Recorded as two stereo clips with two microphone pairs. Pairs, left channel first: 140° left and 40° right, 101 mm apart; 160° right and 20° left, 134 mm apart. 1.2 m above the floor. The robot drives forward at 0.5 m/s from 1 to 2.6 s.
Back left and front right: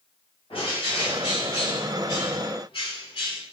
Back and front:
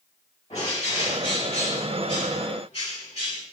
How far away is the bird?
About 1.9 m.